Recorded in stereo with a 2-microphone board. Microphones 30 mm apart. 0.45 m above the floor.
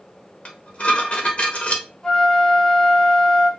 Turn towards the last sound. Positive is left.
turn(degrees=25)  # may be behind; listen again after turning